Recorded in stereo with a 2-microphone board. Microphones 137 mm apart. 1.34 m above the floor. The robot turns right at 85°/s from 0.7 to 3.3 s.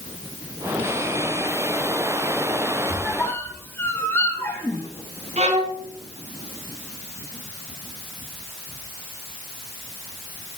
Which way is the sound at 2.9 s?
20° right (ahead or behind).